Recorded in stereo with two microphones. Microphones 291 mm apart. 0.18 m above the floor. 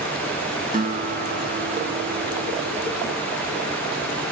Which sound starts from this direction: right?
A guitar, at 0.7 s.